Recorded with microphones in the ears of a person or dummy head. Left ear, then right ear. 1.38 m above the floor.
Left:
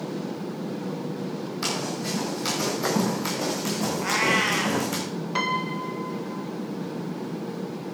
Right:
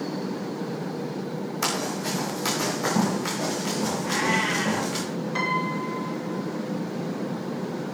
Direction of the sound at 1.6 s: 30° right (ahead or behind).